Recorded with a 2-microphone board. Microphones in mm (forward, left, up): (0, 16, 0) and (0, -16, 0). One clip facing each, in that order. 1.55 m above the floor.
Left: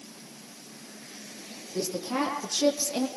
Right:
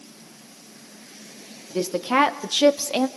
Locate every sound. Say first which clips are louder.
1.7 s a woman speaking: right 9 dB; 70° right (ahead or behind), 2.5 m; by 3.1 s 55° right (ahead or behind), 2 m